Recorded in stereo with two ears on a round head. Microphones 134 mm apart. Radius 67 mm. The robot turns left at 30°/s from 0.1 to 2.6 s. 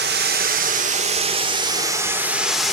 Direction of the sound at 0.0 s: 105° right.